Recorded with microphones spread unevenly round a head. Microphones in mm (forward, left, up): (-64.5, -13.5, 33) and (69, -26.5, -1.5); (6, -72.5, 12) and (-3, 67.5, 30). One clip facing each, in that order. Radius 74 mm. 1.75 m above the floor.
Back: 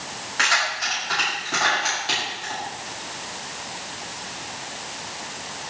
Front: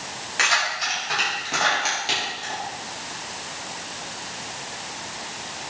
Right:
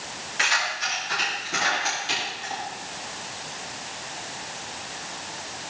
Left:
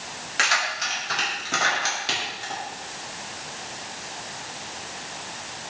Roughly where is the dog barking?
No dog barking in this recording.